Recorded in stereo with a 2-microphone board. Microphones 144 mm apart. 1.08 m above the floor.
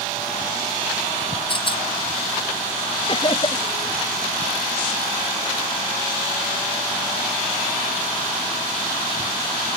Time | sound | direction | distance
1.5 | a rattle | 35° left (ahead or behind) | ?
3.1 | laughter | 35° left (ahead or behind) | ?